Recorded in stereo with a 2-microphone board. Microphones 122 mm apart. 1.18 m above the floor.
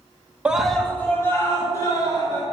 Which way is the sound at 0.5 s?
10° right (ahead or behind).